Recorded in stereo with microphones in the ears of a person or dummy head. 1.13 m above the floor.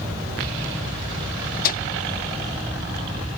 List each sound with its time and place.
1.6 s a microwave: 50° left (ahead or behind)